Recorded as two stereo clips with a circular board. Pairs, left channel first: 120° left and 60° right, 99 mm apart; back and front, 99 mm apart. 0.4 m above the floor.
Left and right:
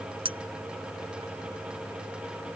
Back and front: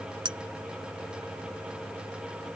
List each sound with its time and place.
0.2 s a clink: 35° right